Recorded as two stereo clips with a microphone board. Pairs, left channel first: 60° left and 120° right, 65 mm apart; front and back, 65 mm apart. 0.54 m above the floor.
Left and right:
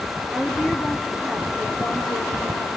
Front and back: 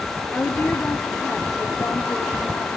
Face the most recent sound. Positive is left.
turn(degrees=-55)